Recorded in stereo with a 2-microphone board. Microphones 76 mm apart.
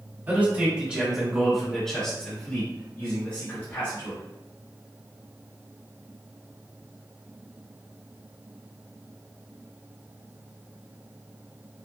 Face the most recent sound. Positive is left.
turn(degrees=40)  # may be behind; listen again after turning